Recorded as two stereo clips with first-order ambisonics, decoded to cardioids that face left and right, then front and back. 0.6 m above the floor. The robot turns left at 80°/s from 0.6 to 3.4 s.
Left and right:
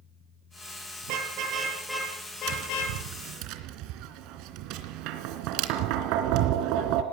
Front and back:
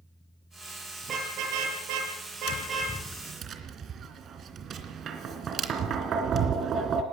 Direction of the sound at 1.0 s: 110° right.